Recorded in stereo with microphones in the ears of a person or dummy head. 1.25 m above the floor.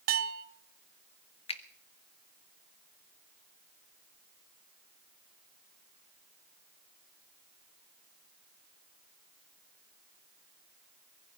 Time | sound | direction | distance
0.1 | a bell | 45° right (ahead or behind) | 0.7 m
1.5 | a finger snap | 30° left (ahead or behind) | 0.7 m